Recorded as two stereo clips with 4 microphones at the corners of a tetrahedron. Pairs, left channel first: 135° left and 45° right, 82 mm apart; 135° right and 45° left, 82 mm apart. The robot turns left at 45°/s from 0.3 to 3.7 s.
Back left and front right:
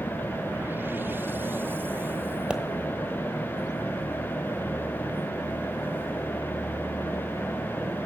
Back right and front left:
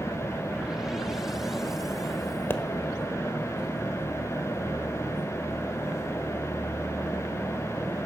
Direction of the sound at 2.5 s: 110° right.